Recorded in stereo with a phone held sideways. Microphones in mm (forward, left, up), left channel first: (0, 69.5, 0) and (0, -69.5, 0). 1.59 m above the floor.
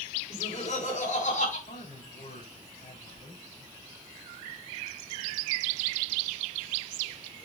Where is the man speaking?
75° left (ahead or behind), 5.5 m.